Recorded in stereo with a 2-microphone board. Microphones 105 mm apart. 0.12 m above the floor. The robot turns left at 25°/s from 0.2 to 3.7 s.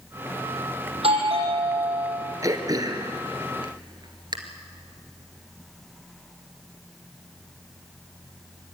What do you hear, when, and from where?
0.9 s a doorbell: 75° right, 6 m; by 2.2 s 105° right, 6 m
2.4 s throat clearing: 35° right (ahead or behind), 2 m; by 4.4 s 45° right (ahead or behind), 2 m